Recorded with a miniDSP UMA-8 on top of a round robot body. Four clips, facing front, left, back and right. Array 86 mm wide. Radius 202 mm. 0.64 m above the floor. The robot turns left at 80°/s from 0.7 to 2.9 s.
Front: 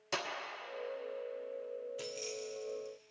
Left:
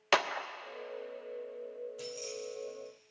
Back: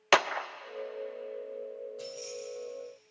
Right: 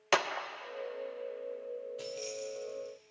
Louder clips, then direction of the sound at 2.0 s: Right 2 dB, back 2 dB; 5° right.